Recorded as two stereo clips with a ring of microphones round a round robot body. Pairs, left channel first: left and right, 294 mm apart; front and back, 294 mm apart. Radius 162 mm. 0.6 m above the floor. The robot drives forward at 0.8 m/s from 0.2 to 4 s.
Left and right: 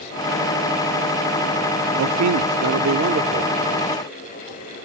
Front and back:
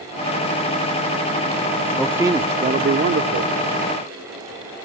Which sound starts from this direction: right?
A man speaking, at 2.0 s.